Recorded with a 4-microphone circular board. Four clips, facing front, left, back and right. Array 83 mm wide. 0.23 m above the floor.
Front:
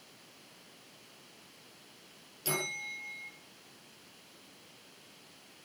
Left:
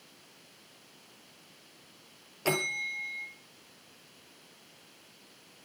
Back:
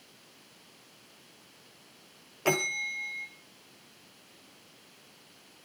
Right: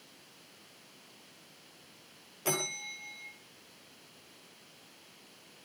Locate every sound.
2.5 s a bell: 160° left, 2.5 m